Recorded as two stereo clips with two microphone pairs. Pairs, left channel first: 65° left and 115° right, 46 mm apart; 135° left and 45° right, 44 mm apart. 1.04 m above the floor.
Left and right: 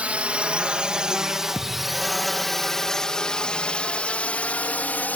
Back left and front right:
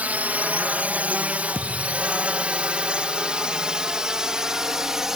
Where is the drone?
70° right; by 5.2 s 30° left.